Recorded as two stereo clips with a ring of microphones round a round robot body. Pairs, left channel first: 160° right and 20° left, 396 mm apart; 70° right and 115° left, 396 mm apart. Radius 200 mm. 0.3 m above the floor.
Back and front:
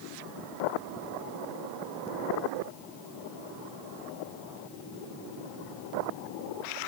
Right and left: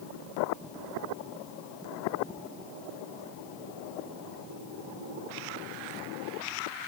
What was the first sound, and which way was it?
Only background noise.